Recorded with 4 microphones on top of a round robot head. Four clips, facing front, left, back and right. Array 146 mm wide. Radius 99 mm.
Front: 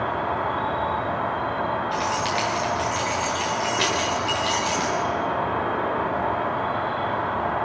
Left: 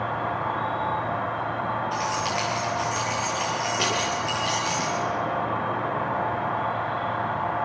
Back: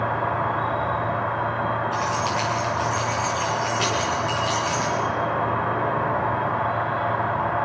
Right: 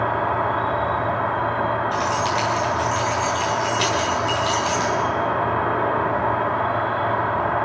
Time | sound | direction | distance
0.0 | an insect | 70° right | 4 m
1.9 | keys jangling | 15° right | 10 m